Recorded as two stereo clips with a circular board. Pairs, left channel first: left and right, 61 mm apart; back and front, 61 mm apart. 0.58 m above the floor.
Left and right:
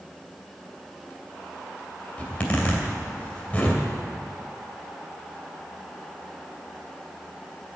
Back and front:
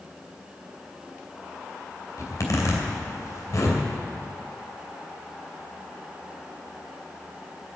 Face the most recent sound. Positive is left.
turn(degrees=155)